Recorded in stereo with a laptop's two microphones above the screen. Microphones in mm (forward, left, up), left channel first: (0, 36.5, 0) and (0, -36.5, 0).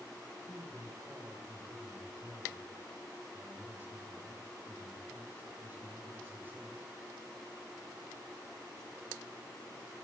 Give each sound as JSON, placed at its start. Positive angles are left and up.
{"t": 0.5, "sound": "a man speaking", "side_deg": -30, "distance_m": 4.5}